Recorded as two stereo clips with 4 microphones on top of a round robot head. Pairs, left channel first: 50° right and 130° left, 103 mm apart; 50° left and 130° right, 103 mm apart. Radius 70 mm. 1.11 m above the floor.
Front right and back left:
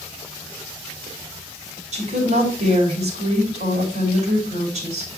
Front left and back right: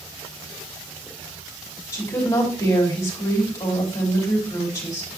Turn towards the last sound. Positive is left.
turn(degrees=115)